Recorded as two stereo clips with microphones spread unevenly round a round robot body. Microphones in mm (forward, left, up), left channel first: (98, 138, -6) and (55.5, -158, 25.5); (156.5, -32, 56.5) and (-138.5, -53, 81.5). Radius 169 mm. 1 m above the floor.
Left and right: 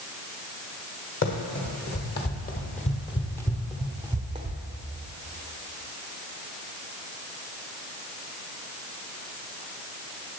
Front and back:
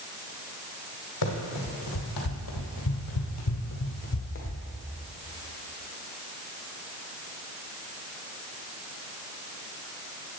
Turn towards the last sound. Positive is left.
turn(degrees=-60)